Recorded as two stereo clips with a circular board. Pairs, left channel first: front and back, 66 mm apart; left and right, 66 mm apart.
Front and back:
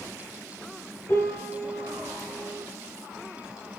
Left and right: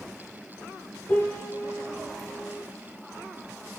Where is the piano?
50° left, 1.0 m.